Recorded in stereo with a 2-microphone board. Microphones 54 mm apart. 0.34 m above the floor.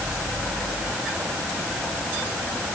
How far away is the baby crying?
No baby crying in this recording.